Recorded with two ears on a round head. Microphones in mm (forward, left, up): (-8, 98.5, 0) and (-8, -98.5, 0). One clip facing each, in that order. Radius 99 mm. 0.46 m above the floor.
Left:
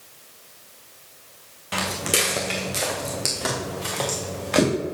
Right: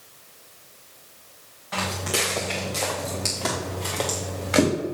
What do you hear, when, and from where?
1.7 s footsteps: 45° left (ahead or behind), 2.5 m; by 4.7 s 5° right (ahead or behind), 4 m